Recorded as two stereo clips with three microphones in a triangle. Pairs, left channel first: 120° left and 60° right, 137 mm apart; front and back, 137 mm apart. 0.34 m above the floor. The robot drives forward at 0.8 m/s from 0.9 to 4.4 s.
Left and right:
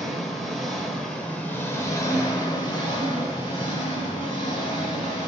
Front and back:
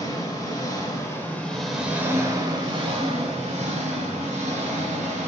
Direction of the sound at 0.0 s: 30° left.